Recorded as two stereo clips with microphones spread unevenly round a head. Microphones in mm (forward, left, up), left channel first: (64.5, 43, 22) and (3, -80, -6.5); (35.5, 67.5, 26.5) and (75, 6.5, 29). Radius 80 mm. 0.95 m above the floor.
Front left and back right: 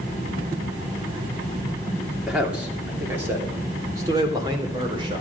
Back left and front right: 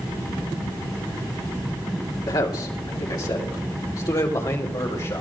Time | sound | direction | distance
2.3 | a man speaking | 160° left | 2.5 m